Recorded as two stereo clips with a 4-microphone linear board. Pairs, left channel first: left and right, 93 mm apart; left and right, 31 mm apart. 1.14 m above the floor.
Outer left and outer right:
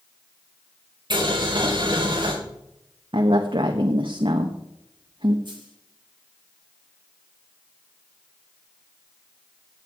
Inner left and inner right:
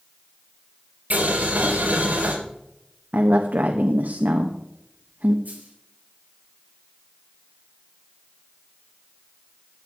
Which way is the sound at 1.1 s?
55° right (ahead or behind).